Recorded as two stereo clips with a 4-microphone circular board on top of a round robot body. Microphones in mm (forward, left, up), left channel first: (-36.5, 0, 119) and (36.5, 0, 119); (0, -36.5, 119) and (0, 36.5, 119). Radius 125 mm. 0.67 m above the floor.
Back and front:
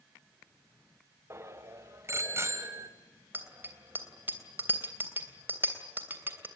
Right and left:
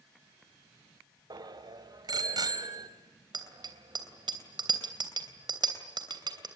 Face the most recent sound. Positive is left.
turn(degrees=65)